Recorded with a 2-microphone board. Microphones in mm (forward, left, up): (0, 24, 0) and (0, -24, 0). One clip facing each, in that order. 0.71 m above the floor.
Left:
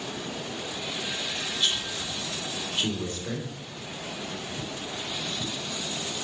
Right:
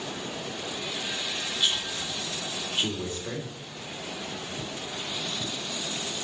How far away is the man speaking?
About 2.5 m.